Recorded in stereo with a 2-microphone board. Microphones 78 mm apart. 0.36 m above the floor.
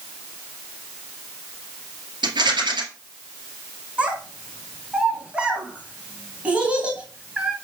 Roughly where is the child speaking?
Centre.